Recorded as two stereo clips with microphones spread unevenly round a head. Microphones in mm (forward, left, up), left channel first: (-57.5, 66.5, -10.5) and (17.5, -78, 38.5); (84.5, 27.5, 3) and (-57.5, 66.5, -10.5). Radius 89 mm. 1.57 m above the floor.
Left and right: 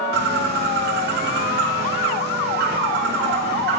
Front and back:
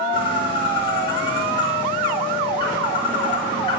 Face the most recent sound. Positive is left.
turn(degrees=-80)